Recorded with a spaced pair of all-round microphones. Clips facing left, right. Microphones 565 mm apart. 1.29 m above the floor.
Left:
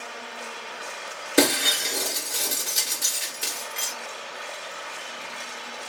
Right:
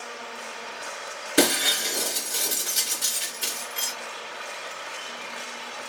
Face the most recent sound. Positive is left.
turn(degrees=0)  # may be behind; listen again after turning